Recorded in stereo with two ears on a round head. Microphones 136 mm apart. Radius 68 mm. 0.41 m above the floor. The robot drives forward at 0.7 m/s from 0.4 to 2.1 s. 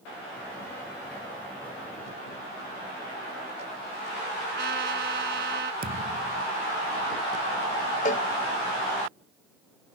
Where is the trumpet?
75° right (ahead or behind).